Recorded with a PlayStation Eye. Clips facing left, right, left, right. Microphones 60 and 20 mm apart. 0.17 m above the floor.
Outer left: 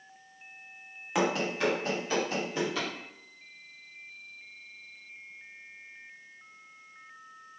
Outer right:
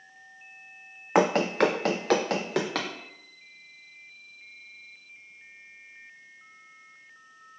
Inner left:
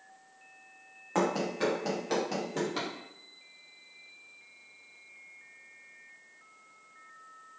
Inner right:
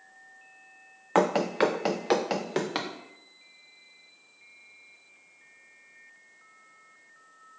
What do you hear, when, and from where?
1.1 s running footsteps: 45° right (ahead or behind), 0.6 m; by 2.9 s 70° right (ahead or behind), 1.2 m